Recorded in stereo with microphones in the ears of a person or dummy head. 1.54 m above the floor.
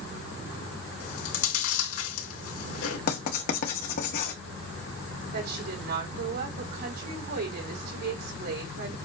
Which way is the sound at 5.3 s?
55° right (ahead or behind).